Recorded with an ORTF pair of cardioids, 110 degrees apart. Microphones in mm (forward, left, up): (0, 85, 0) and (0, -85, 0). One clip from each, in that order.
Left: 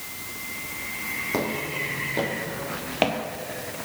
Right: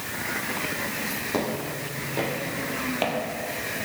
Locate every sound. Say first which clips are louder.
1.3 s footsteps: left 2 dB; 5° left, 4 m; by 3.2 s 45° left, 1.9 m